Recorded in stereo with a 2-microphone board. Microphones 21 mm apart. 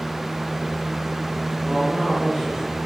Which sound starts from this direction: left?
A man speaking, at 1.6 s.